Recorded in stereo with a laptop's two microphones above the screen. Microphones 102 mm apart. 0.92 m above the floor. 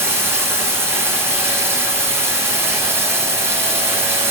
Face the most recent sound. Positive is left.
turn(degrees=-25)  # may be behind; listen again after turning